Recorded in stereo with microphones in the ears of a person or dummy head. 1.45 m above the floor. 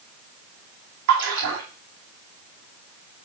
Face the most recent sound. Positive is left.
turn(degrees=-70)  # may be behind; listen again after turning